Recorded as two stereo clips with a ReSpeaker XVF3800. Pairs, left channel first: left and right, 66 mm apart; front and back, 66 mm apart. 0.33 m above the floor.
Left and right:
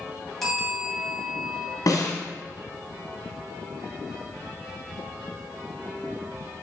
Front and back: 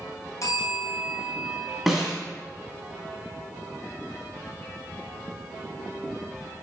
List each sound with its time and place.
0.4 s a bell: straight ahead, 2.5 m
1.9 s a snare drum: 90° left, 2 m